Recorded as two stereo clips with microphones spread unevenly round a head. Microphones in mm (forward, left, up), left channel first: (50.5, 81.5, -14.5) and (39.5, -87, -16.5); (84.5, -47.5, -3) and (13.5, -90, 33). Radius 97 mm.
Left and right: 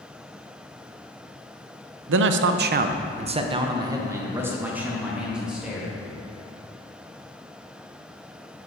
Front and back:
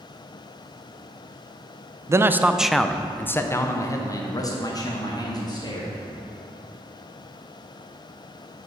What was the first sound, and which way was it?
A man speaking, 95° right.